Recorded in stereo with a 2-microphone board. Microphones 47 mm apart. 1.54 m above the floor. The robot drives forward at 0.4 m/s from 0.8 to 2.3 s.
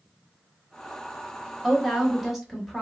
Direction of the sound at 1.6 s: Centre (ahead or behind).